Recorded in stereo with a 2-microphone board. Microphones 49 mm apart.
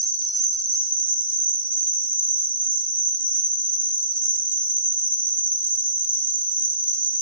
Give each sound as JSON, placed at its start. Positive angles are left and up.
{"t": 0.0, "sound": "an insect", "side_deg": 30, "distance_m": 0.9}